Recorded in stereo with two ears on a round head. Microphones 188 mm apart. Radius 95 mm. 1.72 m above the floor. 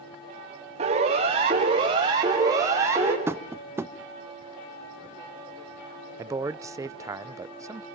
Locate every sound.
0.8 s a siren: 30° right (ahead or behind), 5.5 m; by 3.2 s 10° right (ahead or behind), 5 m
3.3 s tapping: 10° right (ahead or behind), 0.9 m
6.2 s a man speaking: 15° right (ahead or behind), 0.7 m